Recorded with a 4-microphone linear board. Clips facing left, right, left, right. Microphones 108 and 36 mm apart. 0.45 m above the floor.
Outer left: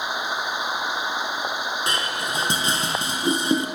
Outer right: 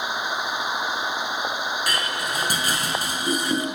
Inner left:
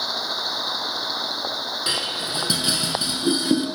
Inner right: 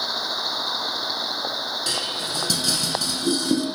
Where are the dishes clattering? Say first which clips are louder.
Even, inner left 1 dB; 25° left (ahead or behind), 4.5 m.